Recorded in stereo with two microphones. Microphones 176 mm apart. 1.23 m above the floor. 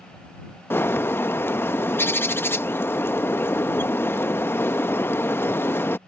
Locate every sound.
0.7 s a bird: 10° left (ahead or behind)